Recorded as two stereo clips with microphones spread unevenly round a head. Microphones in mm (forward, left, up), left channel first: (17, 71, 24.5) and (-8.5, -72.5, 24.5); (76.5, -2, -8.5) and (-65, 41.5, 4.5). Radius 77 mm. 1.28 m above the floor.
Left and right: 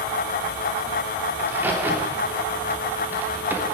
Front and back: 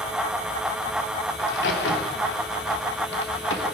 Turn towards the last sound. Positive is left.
turn(degrees=-25)